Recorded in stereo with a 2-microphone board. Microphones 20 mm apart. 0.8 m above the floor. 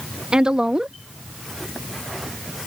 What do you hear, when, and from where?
0.3 s a woman speaking: 55° right (ahead or behind)